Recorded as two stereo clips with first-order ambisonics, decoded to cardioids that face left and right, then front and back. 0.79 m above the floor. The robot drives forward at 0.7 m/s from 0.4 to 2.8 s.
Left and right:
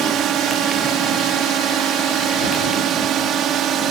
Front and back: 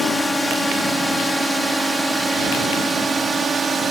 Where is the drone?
85° right; by 3.9 s 120° right.